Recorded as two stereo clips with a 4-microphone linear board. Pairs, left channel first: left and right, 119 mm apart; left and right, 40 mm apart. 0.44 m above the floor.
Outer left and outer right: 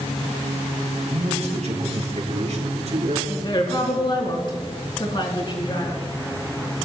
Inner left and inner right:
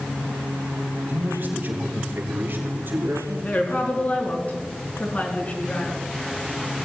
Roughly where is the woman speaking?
Left.